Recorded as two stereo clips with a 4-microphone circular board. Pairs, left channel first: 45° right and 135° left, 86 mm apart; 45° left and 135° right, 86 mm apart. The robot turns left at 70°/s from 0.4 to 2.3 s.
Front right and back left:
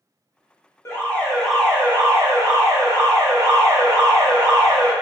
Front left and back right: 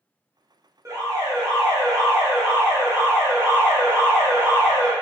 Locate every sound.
0.8 s an alarm: 90° right, 1.2 m; by 4.9 s 170° left, 1.2 m